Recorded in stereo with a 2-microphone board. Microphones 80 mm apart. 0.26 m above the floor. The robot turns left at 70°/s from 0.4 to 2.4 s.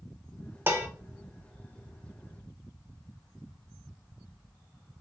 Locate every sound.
0.7 s dishes clattering: 30° right (ahead or behind), 0.6 m